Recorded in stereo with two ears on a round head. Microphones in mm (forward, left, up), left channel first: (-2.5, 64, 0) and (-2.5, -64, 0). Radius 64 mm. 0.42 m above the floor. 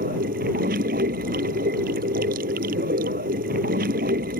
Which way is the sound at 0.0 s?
65° right (ahead or behind).